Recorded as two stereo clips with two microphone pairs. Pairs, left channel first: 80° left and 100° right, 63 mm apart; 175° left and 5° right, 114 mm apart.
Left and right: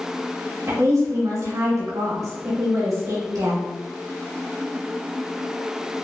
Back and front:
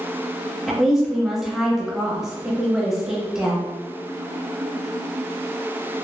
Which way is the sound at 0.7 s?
95° right.